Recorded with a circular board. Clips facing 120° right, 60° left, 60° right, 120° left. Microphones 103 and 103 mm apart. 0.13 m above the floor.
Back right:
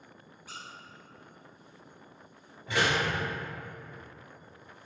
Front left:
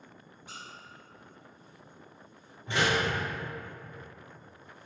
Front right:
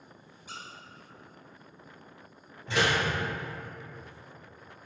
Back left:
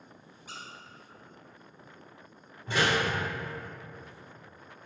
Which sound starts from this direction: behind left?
A squeak, at 0.5 s.